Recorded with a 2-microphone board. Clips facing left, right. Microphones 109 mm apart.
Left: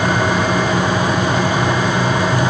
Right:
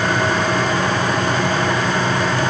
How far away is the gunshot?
I don't hear a gunshot.